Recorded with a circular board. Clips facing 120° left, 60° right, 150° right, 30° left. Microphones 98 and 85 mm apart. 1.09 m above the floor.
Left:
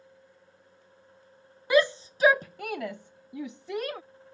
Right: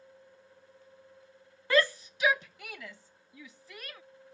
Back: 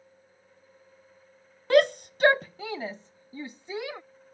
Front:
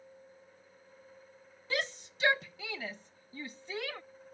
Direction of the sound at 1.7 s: 165° right.